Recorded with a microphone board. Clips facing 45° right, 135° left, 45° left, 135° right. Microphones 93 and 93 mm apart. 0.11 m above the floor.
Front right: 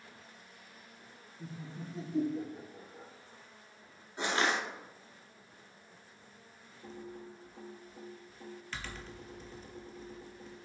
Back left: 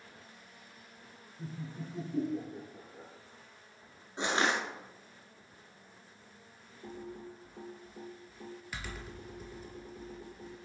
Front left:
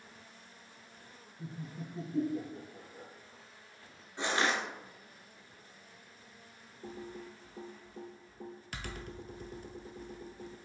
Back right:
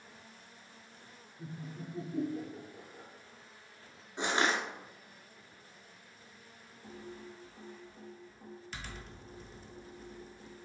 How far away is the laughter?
About 1.6 m.